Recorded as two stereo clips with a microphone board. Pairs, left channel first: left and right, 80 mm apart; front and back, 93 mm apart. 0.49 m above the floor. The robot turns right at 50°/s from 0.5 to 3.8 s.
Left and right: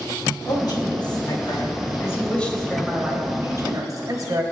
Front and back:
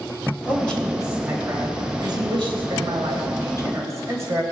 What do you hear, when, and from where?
0.5 s a man speaking: 70° left, 3 m; by 4.4 s 125° right, 3 m